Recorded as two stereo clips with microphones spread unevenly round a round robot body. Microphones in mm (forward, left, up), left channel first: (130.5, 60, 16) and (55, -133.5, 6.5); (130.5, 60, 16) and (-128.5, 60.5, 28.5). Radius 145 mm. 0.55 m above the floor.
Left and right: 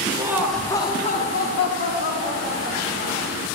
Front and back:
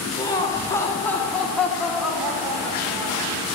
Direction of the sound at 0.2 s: 60° right.